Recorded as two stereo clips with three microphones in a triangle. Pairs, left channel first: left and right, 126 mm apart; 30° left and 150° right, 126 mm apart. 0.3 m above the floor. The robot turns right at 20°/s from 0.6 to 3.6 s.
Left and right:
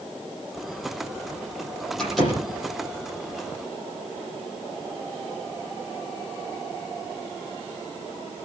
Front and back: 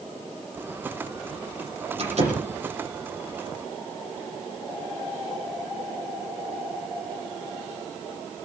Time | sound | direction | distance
2.0 | a door slam | 175° left | 9.5 m